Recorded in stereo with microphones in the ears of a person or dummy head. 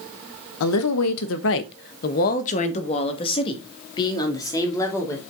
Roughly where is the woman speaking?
Left.